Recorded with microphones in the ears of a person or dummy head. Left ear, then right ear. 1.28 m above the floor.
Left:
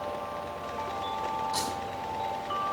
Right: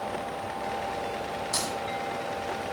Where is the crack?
70° right (ahead or behind), 6 m.